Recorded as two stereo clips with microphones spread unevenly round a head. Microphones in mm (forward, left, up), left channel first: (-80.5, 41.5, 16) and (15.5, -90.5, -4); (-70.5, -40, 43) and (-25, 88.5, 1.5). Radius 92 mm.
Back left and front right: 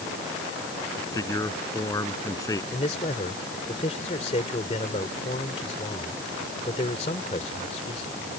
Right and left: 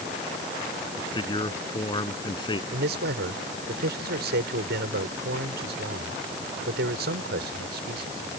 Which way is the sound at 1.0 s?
165° right.